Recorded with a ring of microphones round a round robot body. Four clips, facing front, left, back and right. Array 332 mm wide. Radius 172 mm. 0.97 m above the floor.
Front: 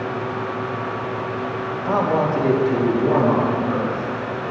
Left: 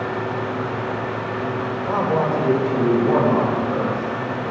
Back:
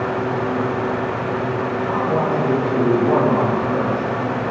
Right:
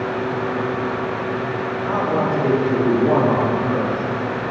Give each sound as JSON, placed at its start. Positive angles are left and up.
{"t": 1.9, "sound": "a man speaking", "azimuth_deg": -15, "distance_m": 2.0}